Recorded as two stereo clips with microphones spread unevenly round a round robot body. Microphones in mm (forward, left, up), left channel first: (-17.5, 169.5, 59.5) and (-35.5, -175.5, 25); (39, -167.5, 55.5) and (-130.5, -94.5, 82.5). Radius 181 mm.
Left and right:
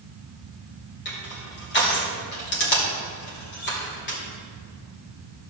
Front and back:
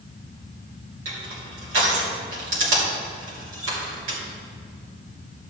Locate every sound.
1.1 s crushing: 145° left, 2.5 m